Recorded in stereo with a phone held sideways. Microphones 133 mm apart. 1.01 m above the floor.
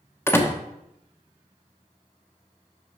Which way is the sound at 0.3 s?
15° left (ahead or behind).